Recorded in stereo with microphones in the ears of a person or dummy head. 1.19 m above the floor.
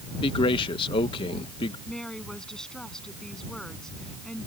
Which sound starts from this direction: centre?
A woman speaking, at 1.9 s.